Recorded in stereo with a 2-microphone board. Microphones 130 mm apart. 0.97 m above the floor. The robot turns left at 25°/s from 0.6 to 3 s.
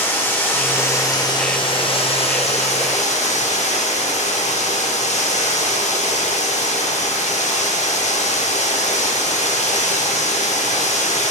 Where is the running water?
160° left, 1.0 m; by 11.3 s 100° left, 1.0 m.